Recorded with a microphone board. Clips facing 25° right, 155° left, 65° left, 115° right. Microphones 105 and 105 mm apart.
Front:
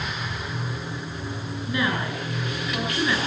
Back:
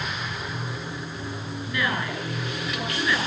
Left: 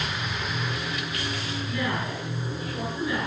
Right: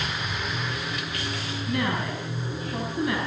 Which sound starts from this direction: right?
A woman speaking, at 1.7 s.